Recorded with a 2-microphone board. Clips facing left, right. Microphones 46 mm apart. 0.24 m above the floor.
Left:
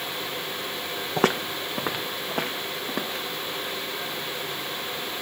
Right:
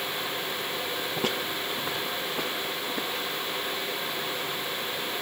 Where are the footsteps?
75° left (ahead or behind), 0.7 m; by 3.2 s 65° left (ahead or behind), 3.5 m.